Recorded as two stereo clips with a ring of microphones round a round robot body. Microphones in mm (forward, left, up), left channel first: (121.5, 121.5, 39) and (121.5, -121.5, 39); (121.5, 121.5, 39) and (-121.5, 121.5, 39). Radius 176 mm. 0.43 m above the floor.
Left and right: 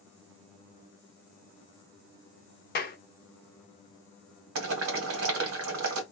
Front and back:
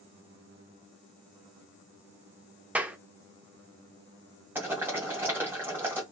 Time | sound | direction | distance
2.8 | a clap | 100° left | 0.6 m
4.5 | boiling | 100° right | 1.2 m